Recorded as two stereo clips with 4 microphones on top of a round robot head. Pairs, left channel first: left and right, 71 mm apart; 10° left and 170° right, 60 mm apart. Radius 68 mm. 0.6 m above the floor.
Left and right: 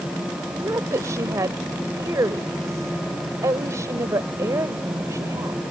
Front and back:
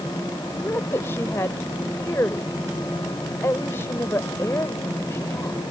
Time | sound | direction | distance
0.5 | a woman speaking | 45° right | ?